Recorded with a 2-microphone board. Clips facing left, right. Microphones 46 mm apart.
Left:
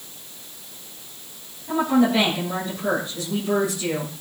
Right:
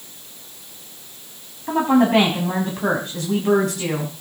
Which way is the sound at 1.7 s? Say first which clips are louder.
Right 3 dB; 60° right (ahead or behind).